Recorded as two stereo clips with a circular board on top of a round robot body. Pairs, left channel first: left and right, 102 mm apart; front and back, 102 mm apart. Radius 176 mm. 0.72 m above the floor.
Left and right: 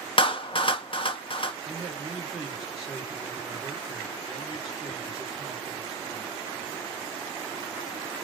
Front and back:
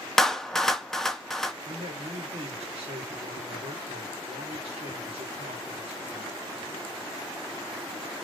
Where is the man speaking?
175° right, 3 m.